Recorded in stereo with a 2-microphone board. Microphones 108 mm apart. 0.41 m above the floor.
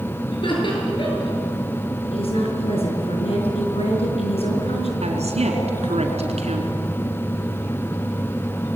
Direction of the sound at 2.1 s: 65° left (ahead or behind).